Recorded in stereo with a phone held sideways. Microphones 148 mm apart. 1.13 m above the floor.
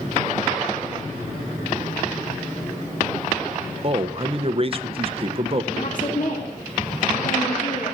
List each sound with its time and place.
3.8 s a man speaking: 40° right (ahead or behind), 0.9 m
5.7 s a woman speaking: 65° left (ahead or behind), 2.5 m